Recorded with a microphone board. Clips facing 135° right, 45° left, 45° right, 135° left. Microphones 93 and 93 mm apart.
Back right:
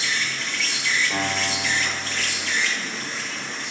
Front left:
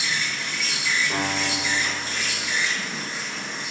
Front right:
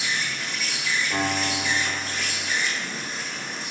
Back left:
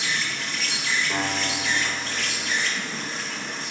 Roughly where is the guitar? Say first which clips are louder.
Even, front right 1 dB; left.